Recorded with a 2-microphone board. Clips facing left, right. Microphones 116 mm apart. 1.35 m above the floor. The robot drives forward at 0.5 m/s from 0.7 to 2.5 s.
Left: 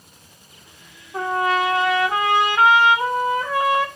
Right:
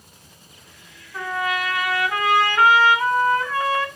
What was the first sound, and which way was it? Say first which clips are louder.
A trumpet: left 5 dB; 40° left (ahead or behind).